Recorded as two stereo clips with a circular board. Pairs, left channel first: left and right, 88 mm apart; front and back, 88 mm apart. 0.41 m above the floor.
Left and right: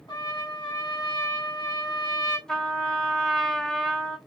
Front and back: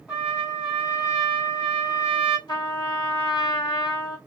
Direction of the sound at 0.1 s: 90° left.